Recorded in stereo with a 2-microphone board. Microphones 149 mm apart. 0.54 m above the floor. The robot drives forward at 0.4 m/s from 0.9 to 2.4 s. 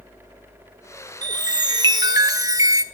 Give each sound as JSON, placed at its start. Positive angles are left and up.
{"t": 1.2, "sound": "a chime", "side_deg": -30, "distance_m": 0.8}